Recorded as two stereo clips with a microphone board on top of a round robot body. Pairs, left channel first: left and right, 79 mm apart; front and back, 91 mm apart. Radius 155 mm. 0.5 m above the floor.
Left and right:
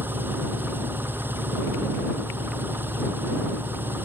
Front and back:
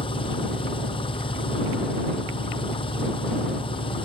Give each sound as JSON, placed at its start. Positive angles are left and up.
{"t": 0.0, "sound": "an engine running", "azimuth_deg": -25}